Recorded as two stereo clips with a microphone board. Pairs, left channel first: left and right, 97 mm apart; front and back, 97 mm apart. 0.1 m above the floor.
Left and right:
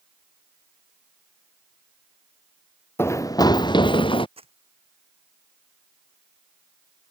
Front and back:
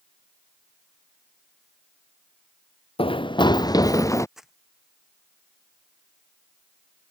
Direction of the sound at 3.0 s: 25° left.